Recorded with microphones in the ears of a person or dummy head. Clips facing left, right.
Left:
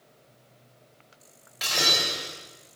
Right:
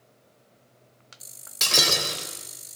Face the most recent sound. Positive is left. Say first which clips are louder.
# right 2 dB
turn(degrees=-60)  # may be behind; listen again after turning